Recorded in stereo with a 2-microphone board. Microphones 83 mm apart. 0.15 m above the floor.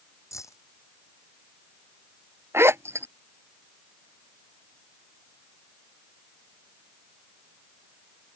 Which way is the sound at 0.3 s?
40° left (ahead or behind).